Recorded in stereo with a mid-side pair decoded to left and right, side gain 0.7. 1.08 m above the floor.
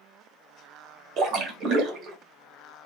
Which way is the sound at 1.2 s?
45° right.